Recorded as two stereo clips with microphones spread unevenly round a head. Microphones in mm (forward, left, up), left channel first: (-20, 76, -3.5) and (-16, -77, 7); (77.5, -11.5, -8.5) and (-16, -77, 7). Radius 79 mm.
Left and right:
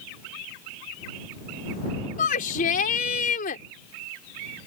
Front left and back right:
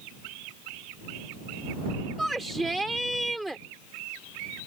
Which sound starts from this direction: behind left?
A shout, at 2.2 s.